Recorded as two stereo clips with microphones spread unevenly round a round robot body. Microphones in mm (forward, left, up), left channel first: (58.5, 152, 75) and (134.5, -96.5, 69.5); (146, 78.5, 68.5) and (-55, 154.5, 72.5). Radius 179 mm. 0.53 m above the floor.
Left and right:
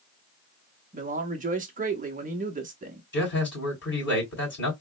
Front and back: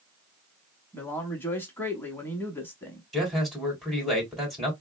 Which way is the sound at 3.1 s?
70° left.